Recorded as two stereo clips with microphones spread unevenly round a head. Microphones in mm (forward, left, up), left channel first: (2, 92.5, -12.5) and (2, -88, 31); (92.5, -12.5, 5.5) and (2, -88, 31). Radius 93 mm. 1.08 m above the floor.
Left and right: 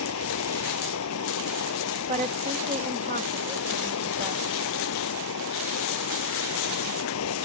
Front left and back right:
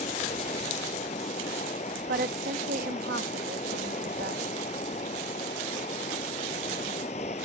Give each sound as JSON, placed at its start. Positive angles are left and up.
{"t": 0.0, "sound": "running water", "azimuth_deg": 100}
{"t": 2.1, "sound": "a woman speaking", "azimuth_deg": -150}